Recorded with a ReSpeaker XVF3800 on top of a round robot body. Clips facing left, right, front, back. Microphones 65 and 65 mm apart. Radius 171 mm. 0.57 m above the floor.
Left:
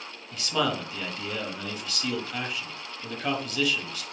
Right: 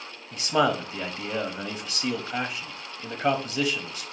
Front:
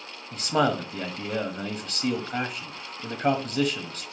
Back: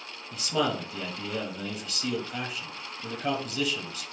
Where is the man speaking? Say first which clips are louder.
Right 4 dB, front 4 dB; 25° right, 1.1 m.